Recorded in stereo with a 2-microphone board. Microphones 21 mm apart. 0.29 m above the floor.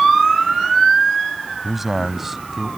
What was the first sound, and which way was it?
A man speaking, 5° right (ahead or behind).